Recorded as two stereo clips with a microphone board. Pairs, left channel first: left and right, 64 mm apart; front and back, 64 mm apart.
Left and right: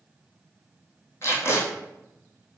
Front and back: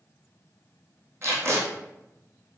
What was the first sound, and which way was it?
Tape being pulled, 135° left.